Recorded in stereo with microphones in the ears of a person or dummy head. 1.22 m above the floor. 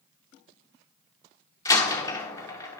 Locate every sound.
1.6 s a door slam: 25° left (ahead or behind), 1.8 m